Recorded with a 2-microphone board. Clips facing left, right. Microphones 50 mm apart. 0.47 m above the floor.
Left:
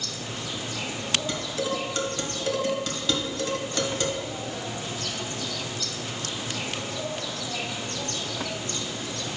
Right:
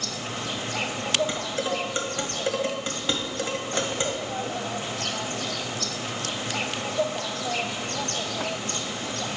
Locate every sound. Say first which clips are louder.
0.0 s an insect: right 3 dB; 60° right (ahead or behind), 0.8 m
1.3 s dishes clattering: right 1 dB; 25° right (ahead or behind), 1.5 m